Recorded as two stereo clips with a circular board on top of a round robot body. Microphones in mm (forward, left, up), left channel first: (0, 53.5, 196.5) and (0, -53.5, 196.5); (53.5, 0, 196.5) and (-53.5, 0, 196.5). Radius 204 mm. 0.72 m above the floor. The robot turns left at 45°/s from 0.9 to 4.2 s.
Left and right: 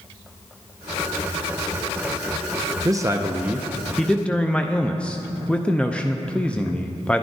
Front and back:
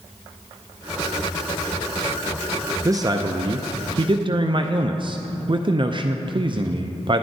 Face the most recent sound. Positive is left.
turn(degrees=165)